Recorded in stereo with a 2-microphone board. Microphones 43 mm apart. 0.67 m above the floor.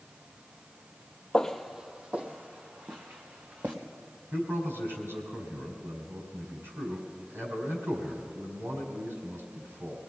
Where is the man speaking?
80° right, 5.5 m.